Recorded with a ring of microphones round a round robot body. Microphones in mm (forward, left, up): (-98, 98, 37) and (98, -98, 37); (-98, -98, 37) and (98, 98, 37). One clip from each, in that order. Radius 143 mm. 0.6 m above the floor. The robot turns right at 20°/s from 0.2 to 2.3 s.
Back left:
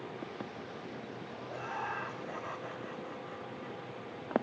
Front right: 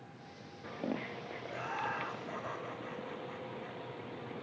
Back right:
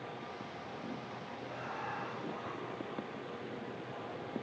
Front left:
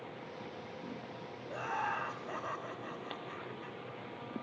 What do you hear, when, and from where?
1.5 s laughter: 35° left, 1.0 m; by 3.8 s 55° left, 1.0 m